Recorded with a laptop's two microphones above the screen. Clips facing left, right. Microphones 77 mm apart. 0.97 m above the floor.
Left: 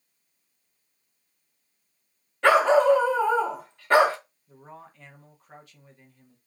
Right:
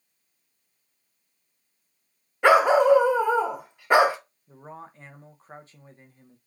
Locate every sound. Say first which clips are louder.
2.4 s a dog barking: right 1 dB; 15° right (ahead or behind), 0.5 m
4.5 s a man speaking: right 4 dB; 30° right (ahead or behind), 0.7 m